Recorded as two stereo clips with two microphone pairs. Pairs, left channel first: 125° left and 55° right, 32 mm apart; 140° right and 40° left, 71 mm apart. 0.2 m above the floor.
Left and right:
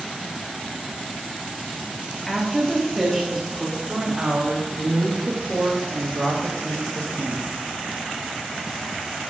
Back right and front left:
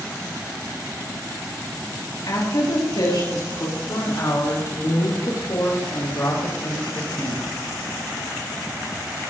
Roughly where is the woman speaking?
Behind right.